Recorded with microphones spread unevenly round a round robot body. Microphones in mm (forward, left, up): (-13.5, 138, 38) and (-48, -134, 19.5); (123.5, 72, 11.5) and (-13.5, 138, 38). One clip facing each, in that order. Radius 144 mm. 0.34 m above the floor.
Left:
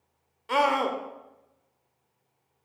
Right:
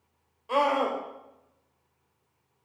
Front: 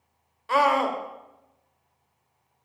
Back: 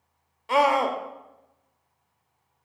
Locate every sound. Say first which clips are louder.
0.5 s a scream: even, back 1 dB; 85° left, 0.9 m